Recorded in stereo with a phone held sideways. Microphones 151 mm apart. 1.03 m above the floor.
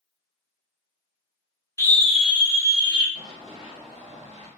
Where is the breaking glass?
I don't hear breaking glass.